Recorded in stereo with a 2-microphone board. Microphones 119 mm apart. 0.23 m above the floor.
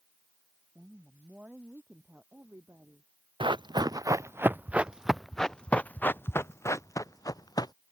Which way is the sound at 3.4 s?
45° right (ahead or behind).